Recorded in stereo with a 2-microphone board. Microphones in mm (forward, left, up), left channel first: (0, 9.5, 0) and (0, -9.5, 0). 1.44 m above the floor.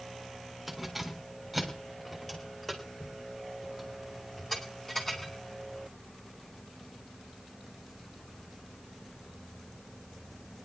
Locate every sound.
0.7 s keys jangling: centre (ahead or behind), 3 m; by 5.3 s 25° left (ahead or behind), 5 m